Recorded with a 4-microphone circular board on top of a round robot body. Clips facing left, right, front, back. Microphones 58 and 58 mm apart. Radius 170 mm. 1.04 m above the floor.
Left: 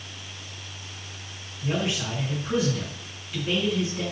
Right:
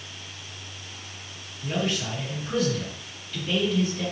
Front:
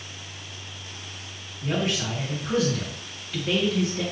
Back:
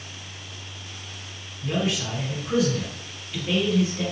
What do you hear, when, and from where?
1.6 s a man speaking: 15° left, 2.5 m